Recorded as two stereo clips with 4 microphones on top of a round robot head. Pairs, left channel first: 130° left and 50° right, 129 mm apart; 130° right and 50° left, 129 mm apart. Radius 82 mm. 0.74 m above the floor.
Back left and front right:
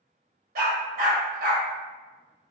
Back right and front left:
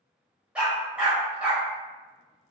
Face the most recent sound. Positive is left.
turn(degrees=-30)